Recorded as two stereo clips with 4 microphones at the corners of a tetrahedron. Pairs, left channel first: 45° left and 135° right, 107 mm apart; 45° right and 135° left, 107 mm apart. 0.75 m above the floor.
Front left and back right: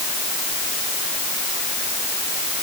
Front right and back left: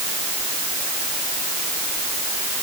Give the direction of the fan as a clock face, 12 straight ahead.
I don't hear a fan.